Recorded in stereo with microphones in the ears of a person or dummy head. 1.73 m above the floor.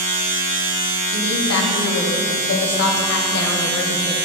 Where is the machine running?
50° right (ahead or behind), 1.9 m.